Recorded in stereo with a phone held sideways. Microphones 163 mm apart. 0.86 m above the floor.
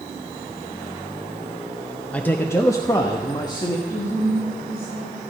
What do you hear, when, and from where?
2.1 s a man speaking: 5° left (ahead or behind), 0.6 m; by 3.8 s 25° left (ahead or behind), 1.2 m
3.9 s a woman speaking: 85° left, 5 m